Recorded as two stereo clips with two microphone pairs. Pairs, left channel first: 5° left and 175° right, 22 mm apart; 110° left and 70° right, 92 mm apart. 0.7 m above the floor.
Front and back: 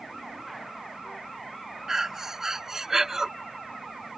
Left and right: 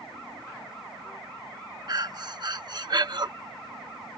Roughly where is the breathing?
Right.